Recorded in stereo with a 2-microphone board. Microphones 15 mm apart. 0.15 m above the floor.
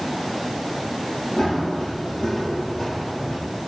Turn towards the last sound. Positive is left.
turn(degrees=80)